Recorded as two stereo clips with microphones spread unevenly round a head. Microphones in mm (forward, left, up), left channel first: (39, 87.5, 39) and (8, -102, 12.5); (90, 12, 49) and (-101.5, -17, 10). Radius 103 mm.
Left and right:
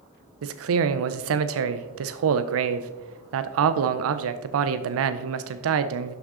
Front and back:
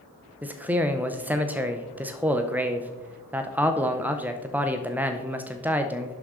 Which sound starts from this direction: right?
A man speaking, at 0.4 s.